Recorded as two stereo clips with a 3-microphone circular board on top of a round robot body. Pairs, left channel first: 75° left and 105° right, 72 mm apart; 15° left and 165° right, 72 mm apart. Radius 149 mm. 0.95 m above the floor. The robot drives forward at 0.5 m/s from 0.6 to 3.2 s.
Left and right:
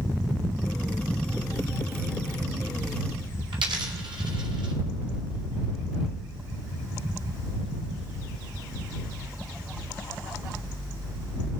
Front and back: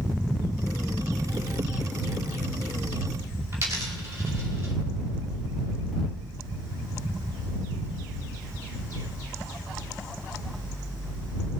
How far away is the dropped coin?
About 2.5 m.